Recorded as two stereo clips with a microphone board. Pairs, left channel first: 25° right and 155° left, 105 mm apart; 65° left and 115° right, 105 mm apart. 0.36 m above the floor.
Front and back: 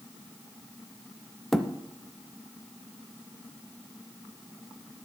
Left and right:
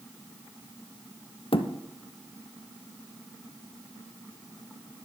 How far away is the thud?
About 0.9 m.